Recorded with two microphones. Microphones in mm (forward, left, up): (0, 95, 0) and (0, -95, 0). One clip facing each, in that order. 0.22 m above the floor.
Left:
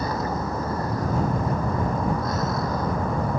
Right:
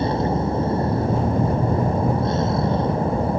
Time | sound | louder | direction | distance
0.0 | a vehicle | right 6 dB | 25° right (ahead or behind) | ?